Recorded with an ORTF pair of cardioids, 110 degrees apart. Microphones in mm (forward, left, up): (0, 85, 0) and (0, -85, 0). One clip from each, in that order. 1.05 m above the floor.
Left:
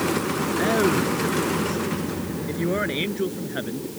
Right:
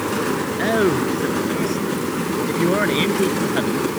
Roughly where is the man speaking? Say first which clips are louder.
Right 3 dB; ahead.